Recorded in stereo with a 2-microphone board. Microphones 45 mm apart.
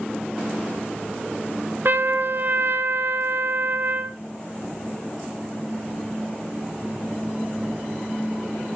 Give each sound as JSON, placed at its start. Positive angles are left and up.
{"t": 1.9, "sound": "a trumpet", "side_deg": -55, "distance_m": 0.6}